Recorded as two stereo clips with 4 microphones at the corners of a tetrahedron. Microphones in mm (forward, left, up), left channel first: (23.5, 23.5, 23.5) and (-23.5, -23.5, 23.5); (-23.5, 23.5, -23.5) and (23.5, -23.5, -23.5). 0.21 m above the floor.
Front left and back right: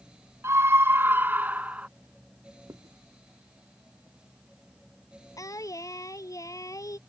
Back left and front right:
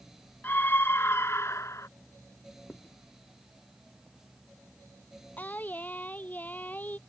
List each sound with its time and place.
0.4 s a scream: 170° right; by 1.9 s 160° left
2.7 s writing: 160° right
5.4 s singing: 70° left